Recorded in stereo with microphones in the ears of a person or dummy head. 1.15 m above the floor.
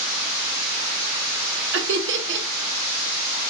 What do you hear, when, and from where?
1.7 s laughter: 55° right (ahead or behind), 0.8 m